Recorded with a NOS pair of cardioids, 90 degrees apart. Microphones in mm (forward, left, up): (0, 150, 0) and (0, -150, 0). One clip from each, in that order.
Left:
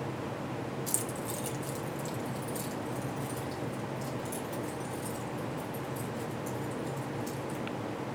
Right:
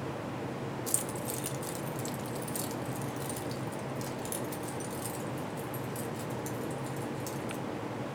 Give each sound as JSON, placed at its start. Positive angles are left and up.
{"t": 0.9, "sound": "keys jangling", "azimuth_deg": -5, "distance_m": 1.1}